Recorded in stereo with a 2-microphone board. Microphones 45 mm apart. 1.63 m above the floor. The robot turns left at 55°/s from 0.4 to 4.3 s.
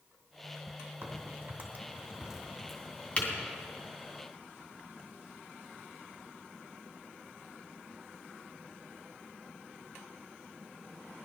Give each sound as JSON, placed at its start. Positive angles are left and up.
{"t": 1.0, "sound": "a crack", "side_deg": -70, "distance_m": 2.5}